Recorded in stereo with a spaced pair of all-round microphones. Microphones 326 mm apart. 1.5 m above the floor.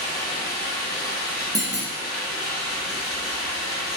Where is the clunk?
10° right (ahead or behind), 0.6 m.